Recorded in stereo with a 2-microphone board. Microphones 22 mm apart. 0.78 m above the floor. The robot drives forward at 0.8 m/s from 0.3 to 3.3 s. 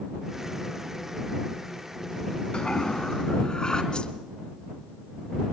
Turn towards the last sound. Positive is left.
turn(degrees=45)  # may be behind; listen again after turning